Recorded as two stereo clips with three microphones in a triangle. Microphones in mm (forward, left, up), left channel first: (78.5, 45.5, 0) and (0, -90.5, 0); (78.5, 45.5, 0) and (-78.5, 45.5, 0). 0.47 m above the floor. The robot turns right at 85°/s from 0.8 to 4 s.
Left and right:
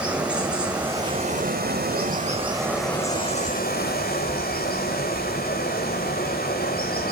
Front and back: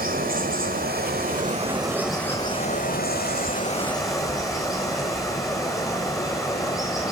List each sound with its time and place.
0.0 s running water: 155° left, 2.5 m; by 7.1 s 70° left, 2.5 m